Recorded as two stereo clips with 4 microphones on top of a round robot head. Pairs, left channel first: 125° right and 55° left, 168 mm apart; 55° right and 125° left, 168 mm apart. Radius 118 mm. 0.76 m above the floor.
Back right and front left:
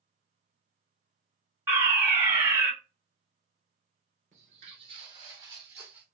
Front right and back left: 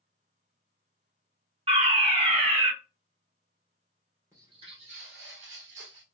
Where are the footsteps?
60° left, 0.8 m; by 6.0 s 135° left, 1.2 m.